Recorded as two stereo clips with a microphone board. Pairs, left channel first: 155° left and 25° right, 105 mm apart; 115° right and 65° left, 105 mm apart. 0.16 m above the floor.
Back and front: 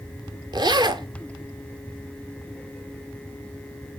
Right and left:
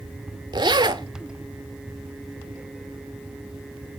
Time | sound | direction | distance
0.5 | a zipper | 25° left | 0.5 m